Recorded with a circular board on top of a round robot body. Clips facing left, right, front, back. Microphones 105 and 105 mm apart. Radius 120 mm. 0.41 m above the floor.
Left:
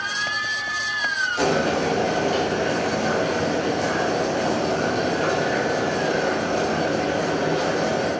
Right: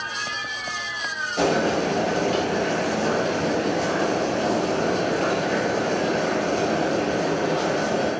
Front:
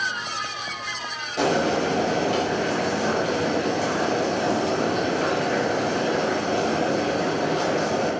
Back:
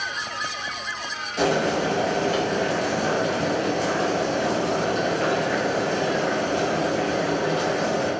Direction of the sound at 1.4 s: 65° right.